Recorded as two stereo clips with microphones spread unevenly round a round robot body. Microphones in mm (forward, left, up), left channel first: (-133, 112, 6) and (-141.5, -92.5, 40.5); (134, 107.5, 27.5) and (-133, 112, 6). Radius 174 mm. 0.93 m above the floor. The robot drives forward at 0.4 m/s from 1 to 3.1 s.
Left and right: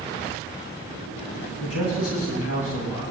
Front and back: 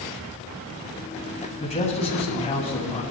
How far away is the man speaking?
About 6 m.